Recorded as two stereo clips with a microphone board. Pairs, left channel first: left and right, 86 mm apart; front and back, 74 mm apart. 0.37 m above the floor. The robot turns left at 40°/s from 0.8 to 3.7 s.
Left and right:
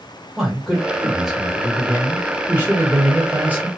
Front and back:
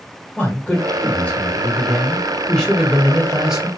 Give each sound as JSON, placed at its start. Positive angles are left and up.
{"t": 0.4, "sound": "a man speaking", "azimuth_deg": 0, "distance_m": 1.2}